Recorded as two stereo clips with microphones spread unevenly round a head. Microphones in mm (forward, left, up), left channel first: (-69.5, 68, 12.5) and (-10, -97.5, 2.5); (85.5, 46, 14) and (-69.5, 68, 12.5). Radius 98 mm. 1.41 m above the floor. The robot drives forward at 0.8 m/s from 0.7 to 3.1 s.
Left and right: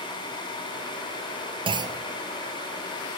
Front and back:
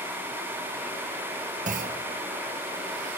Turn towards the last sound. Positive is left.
turn(degrees=-160)